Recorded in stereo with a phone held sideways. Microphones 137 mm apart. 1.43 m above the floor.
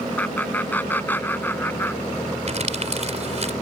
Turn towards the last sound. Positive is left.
turn(degrees=-50)  # may be behind; listen again after turning